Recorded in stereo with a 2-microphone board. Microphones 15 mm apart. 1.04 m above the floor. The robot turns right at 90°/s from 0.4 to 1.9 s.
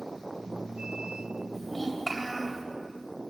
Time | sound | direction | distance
1.5 | a child speaking | 140° left | 4 m